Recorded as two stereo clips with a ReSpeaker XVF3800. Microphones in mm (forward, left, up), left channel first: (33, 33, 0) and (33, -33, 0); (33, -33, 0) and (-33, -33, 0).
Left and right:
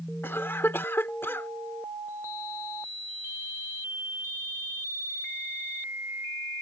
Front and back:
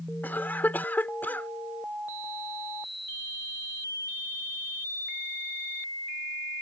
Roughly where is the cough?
Ahead left.